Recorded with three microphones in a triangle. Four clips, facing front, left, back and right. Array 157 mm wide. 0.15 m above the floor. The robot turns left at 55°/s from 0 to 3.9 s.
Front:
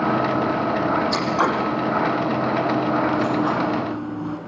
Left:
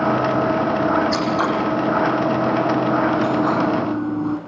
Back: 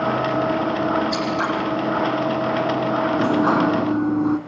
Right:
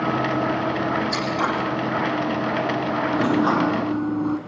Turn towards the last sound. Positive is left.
turn(degrees=175)